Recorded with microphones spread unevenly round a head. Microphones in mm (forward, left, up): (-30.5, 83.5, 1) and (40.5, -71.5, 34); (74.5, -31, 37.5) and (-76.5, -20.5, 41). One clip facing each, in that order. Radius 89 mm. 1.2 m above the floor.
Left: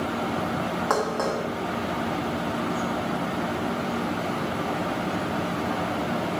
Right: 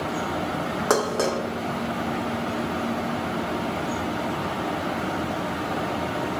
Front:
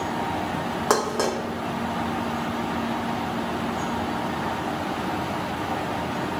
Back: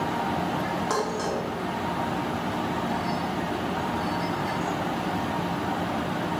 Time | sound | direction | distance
0.9 | dishes clattering | 25° right | 0.8 m